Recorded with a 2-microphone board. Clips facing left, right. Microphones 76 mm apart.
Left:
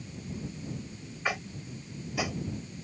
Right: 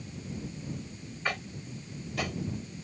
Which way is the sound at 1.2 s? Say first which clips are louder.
Left 1 dB; 10° left (ahead or behind).